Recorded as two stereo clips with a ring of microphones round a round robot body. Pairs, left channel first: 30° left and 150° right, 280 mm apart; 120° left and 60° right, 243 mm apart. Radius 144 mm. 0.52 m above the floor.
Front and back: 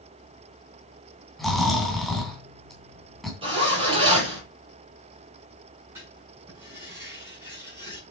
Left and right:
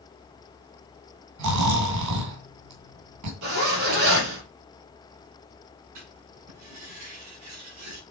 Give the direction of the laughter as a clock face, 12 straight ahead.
No laughter in this recording.